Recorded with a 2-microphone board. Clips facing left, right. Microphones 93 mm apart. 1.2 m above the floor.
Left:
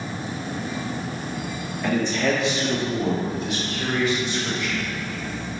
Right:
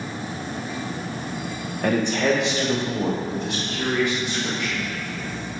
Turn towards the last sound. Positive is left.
turn(degrees=-80)